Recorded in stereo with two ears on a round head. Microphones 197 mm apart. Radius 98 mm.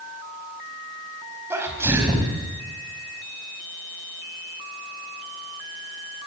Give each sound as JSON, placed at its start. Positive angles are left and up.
{"t": 1.5, "sound": "a sneeze", "side_deg": -10, "distance_m": 4.5}